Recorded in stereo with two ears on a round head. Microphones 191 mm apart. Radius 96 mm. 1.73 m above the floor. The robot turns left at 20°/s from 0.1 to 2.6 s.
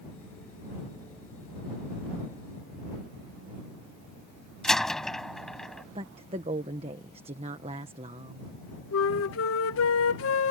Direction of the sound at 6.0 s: 25° right (ahead or behind).